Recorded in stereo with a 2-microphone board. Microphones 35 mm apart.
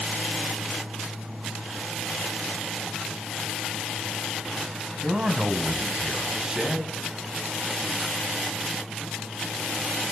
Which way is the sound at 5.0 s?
20° right (ahead or behind).